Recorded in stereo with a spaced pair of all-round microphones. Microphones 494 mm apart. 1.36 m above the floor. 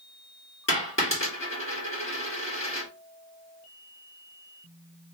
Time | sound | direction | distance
0.7 | a dropped coin | 25° left (ahead or behind) | 1.4 m